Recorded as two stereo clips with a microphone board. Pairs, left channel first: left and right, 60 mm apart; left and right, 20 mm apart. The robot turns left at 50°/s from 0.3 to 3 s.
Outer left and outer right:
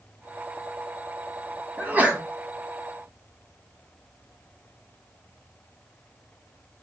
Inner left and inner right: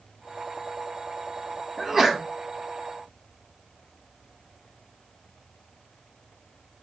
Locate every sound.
1.8 s a sneeze: 30° right (ahead or behind), 1.1 m; by 2.2 s 25° right (ahead or behind), 1.1 m